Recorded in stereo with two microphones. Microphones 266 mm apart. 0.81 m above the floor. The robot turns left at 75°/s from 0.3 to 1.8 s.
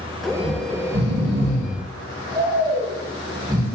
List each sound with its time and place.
0.4 s snoring: 60° right (ahead or behind), 2.5 m; by 3.6 s 15° right (ahead or behind), 2.5 m